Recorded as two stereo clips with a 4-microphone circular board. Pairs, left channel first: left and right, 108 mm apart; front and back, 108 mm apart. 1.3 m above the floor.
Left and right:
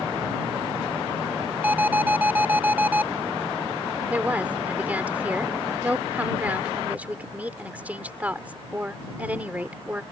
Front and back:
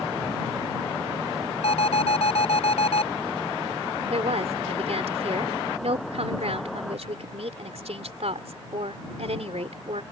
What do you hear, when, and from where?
1.6 s an alarm: 15° right
4.1 s a woman speaking: 170° right